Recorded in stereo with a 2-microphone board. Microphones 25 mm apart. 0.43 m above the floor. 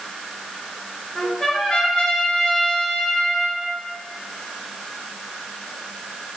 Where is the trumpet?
15° left (ahead or behind), 1.8 m.